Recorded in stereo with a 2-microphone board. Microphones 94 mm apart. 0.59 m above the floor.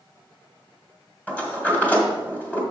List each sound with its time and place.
1.3 s a sliding door: 15° left (ahead or behind), 1.6 m